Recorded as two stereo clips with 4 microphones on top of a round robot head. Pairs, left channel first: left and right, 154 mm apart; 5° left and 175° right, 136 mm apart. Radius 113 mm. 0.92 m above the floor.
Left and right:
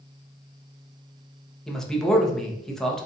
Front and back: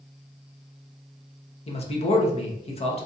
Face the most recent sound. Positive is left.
turn(degrees=5)